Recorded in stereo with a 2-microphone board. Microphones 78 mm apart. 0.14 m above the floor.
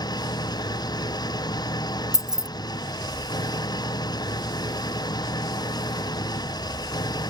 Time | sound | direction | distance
0.0 | an engine running | 60° left (ahead or behind) | ?
2.1 | keys jangling | 5° right (ahead or behind) | ?